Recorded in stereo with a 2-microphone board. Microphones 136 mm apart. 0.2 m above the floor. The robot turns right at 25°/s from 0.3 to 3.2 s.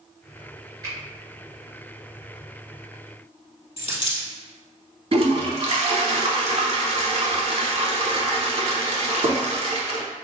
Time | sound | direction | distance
0.8 | a finger snap | 30° right (ahead or behind) | 1.6 m
3.8 | a dropped coin | 40° left (ahead or behind) | 1.7 m
5.1 | a toilet flushing | 45° right (ahead or behind) | 0.5 m